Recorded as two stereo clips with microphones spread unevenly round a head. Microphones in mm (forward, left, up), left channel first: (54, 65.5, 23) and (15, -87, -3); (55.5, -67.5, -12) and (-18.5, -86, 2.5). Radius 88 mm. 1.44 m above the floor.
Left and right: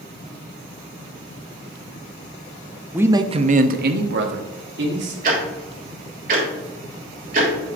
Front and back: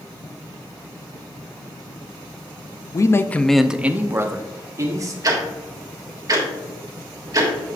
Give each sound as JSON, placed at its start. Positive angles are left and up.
{"t": 2.9, "sound": "a man speaking", "azimuth_deg": -25, "distance_m": 0.6}
{"t": 5.2, "sound": "ticking", "azimuth_deg": -150, "distance_m": 1.4}